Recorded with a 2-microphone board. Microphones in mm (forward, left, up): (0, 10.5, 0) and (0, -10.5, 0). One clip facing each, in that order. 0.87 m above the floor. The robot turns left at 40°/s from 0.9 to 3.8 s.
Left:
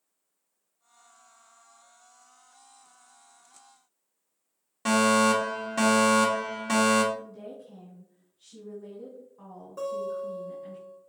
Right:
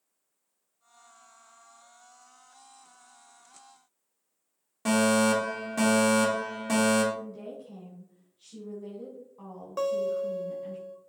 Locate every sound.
4.8 s a fire alarm: 15° left (ahead or behind), 2 m
7.1 s a woman speaking: 15° right (ahead or behind), 3 m
9.8 s a guitar: 50° right (ahead or behind), 1.1 m